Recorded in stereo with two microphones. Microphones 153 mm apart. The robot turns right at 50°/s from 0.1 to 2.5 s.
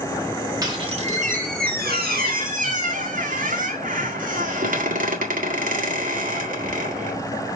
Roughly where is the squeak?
Behind right.